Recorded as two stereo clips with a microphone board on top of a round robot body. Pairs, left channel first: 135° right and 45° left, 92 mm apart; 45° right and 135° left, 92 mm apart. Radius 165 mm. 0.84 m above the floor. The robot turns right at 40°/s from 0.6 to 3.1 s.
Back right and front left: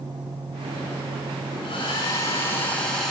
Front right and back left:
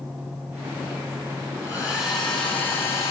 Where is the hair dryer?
105° right, 8 m; by 3.1 s 45° right, 8 m.